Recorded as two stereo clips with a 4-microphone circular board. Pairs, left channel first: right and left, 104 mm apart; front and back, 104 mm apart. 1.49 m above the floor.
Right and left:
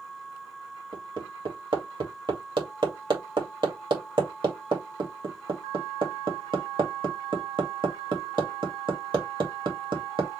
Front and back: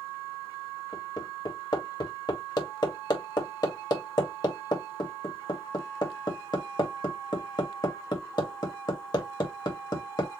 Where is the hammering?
50° left, 2 m.